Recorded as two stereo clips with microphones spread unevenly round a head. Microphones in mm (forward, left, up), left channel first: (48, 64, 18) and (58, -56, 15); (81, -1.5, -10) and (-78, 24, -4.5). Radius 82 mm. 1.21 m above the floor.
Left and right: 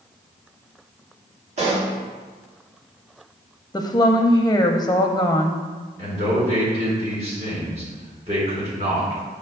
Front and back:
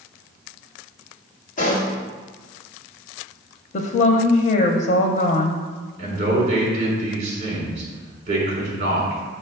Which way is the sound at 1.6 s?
55° right.